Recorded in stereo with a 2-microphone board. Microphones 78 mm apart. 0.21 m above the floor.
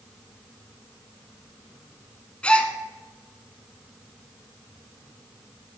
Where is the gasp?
15° left (ahead or behind), 0.6 m.